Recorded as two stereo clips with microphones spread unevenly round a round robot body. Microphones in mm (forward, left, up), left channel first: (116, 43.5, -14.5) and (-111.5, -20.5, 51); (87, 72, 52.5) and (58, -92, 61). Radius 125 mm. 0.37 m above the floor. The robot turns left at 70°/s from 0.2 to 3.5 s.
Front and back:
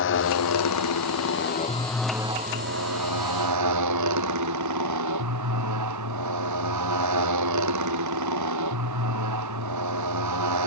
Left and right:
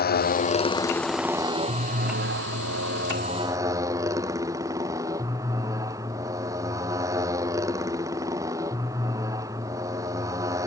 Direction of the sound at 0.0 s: 55° left.